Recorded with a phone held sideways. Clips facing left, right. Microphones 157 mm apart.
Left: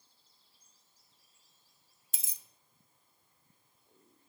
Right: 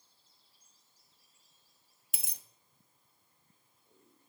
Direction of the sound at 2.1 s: 65° right (ahead or behind).